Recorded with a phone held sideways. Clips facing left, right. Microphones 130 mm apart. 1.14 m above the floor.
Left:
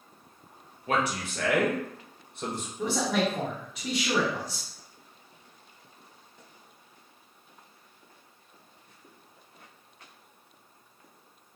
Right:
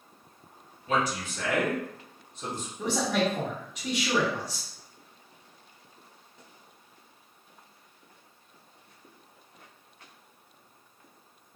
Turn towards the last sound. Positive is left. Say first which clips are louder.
# even
turn(degrees=5)  # may be behind; listen again after turning